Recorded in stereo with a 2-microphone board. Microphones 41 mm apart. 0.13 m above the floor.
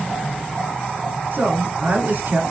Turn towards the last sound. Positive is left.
turn(degrees=-40)  # may be behind; listen again after turning